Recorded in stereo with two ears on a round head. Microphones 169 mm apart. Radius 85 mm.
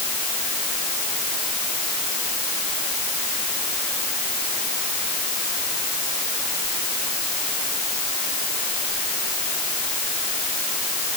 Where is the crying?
No crying in this recording.